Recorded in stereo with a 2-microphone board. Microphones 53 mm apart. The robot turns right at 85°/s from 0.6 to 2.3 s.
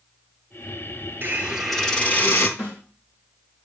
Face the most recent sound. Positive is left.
turn(degrees=55)  # may be behind; listen again after turning